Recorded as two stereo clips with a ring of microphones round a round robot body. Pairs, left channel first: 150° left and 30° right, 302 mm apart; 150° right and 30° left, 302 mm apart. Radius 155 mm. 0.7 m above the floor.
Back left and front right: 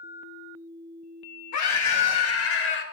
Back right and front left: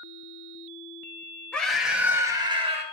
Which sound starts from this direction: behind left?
A scream, at 1.5 s.